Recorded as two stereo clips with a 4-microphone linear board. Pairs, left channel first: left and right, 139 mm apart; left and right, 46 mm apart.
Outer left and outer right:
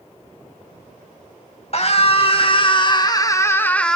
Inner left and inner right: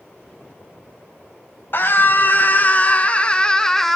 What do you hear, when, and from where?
1.7 s a scream: 50° left (ahead or behind), 2 m; by 4.0 s 5° left (ahead or behind), 1.3 m